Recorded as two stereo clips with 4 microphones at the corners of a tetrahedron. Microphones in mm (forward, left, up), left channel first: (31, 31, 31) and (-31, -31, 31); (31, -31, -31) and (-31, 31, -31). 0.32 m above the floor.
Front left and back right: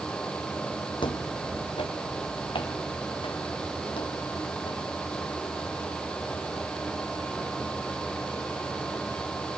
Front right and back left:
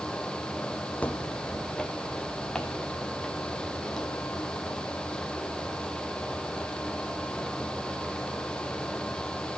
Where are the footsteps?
30° left, 1.1 m; by 4.8 s 40° left, 5.5 m.